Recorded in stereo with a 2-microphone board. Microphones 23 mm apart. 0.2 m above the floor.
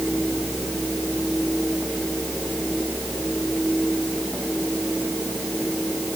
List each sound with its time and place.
Only background noise.